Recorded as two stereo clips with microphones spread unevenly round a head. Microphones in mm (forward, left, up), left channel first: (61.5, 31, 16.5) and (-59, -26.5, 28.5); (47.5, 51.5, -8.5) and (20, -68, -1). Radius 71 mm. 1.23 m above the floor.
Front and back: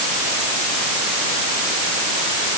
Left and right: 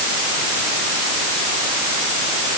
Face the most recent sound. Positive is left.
No sound to turn to.